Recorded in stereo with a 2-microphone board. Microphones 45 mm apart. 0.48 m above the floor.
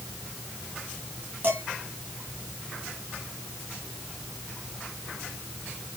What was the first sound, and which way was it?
Dishes clattering, 45° right (ahead or behind).